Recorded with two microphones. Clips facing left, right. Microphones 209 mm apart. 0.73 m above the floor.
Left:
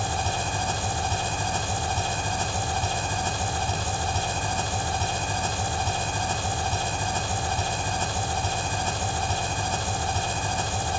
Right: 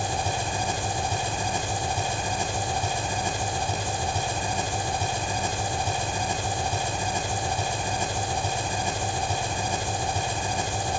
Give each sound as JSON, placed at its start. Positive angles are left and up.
{"t": 0.0, "sound": "an engine running", "side_deg": -15, "distance_m": 1.7}